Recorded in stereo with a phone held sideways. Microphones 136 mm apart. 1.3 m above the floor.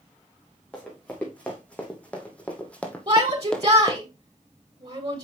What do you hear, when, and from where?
0.7 s running footsteps: 10° left (ahead or behind), 4 m; by 4.0 s 5° left (ahead or behind), 1.3 m
3.1 s a shout: 45° right (ahead or behind), 2.5 m